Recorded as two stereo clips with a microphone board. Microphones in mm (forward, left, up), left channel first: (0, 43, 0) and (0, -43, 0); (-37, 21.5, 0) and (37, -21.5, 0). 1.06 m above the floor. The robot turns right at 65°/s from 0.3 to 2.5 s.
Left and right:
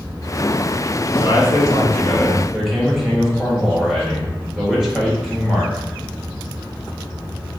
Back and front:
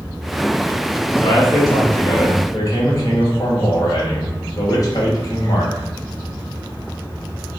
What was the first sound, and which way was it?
A man speaking, 100° left.